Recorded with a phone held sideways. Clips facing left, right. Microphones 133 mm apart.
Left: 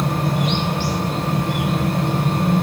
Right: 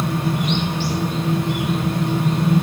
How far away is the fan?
About 7.5 m.